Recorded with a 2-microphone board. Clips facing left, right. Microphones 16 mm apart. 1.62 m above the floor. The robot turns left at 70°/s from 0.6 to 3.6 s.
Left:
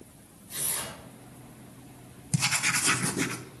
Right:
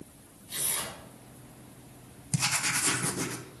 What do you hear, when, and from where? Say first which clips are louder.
0.5 s tearing paper: right 1 dB; 65° right (ahead or behind), 5.5 m; by 1.0 s 40° right (ahead or behind), 5.5 m
2.3 s writing: left 2 dB; 175° left, 1.1 m; by 3.4 s 100° left, 1.1 m